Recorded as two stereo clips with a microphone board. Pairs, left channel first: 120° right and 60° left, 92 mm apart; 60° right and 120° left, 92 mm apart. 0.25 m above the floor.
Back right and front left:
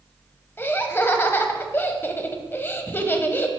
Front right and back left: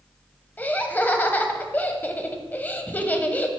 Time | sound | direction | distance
0.6 | laughter | 100° right | 1.0 m